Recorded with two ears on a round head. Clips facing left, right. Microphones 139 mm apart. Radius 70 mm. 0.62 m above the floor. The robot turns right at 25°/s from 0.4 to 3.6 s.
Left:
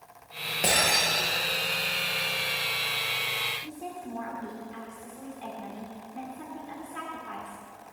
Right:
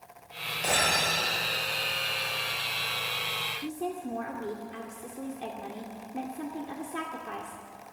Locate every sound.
0.6 s breaking glass: 85° left, 9 m; by 1.3 s 75° left (ahead or behind), 9 m
3.6 s a woman speaking: 60° right (ahead or behind), 1.9 m